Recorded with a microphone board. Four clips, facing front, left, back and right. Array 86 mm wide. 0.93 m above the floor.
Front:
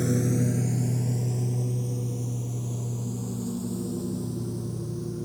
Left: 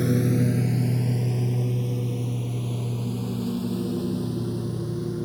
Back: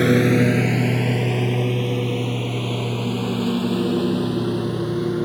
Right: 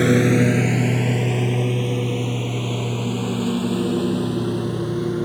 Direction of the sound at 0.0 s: 135° right.